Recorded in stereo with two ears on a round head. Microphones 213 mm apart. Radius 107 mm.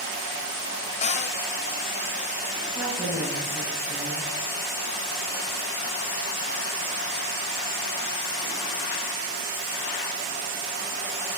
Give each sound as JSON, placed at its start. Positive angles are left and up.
{"t": 1.0, "sound": "a cupboard door", "side_deg": 30, "distance_m": 1.0}
{"t": 2.8, "sound": "a woman speaking", "side_deg": -10, "distance_m": 9.0}